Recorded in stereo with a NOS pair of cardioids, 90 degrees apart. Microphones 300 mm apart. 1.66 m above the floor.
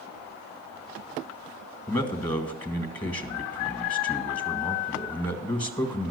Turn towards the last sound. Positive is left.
turn(degrees=15)